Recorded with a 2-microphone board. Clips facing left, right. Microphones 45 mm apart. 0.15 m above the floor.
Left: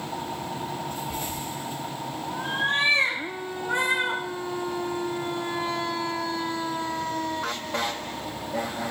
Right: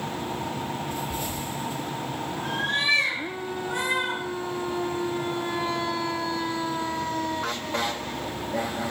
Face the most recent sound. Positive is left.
turn(degrees=30)  # may be behind; listen again after turning